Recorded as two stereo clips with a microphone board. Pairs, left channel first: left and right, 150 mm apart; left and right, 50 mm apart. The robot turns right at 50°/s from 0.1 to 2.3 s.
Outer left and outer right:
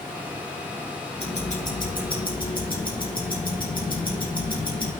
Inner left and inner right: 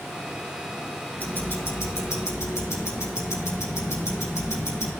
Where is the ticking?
40° left, 3.5 m; by 4.9 s 95° left, 3.5 m.